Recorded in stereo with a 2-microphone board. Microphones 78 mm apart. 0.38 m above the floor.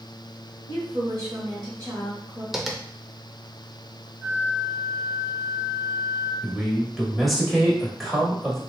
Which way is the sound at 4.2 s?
30° right (ahead or behind).